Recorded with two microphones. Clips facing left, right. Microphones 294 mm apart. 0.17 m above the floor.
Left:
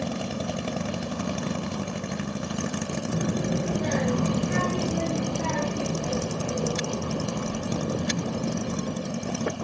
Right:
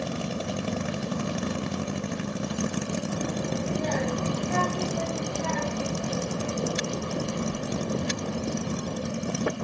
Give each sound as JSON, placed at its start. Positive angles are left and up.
{"t": 3.1, "sound": "a child speaking", "side_deg": 55, "distance_m": 1.1}